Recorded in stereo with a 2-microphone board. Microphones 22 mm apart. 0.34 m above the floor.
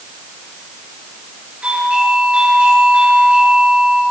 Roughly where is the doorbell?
Right.